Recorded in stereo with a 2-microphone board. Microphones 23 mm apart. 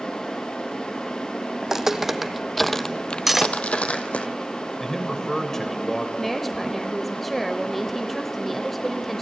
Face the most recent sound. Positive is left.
turn(degrees=5)  # may be behind; listen again after turning